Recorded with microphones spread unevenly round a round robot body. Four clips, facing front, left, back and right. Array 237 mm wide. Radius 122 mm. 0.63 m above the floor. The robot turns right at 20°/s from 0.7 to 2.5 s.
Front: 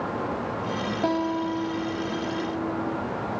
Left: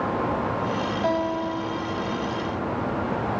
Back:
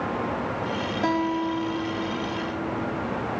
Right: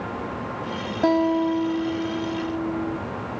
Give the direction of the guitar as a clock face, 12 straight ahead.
3 o'clock.